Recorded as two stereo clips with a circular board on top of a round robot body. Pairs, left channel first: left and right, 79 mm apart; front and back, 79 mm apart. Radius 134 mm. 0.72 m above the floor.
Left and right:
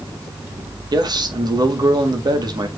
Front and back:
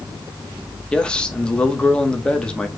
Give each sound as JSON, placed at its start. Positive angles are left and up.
{"t": 0.9, "sound": "a man speaking", "azimuth_deg": -75, "distance_m": 2.0}